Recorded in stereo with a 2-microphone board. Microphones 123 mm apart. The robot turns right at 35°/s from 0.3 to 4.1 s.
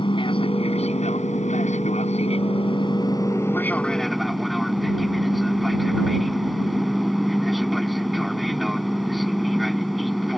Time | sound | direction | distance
0.0 | an aircraft | 45° left | ?